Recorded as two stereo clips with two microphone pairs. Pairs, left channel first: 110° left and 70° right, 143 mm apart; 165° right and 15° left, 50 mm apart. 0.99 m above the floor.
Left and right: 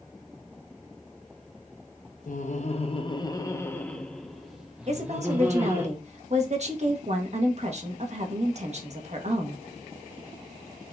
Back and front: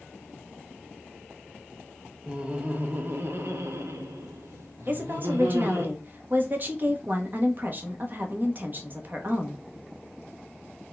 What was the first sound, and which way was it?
Laughter, 85° left.